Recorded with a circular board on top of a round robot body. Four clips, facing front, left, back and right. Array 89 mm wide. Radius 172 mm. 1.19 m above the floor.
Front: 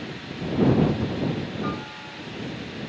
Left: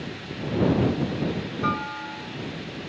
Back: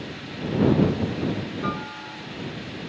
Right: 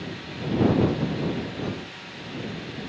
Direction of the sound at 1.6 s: 95° left.